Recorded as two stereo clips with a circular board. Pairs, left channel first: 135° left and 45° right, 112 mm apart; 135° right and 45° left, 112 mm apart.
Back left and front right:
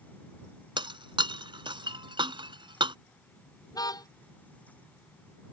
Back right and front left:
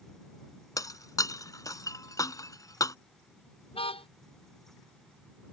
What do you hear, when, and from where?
0.8 s breaking glass: 80° right
3.7 s a car horn: 170° right